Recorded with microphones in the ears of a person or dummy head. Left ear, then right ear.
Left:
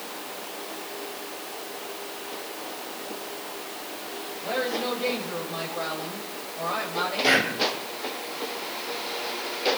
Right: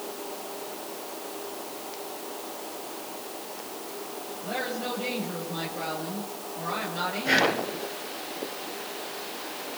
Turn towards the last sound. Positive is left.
turn(degrees=75)  # may be behind; listen again after turning